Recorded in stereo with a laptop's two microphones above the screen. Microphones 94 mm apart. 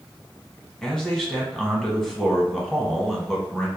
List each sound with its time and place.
0.8 s a man speaking: 5° left (ahead or behind), 1.1 m